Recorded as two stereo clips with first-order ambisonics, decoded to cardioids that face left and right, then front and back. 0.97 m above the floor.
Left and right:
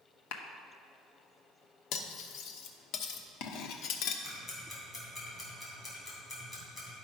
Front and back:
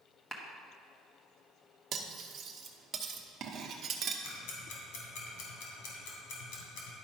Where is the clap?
80° left, 1.0 m.